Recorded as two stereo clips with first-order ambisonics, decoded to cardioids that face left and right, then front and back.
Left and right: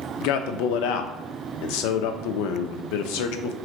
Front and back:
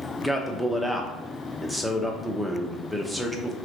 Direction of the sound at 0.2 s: 90° left.